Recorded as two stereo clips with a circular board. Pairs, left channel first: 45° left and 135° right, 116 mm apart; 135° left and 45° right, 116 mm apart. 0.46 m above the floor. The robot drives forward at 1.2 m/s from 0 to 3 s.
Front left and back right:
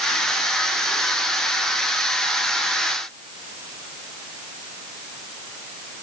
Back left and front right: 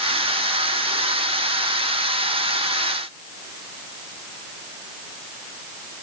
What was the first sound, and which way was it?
Only background noise.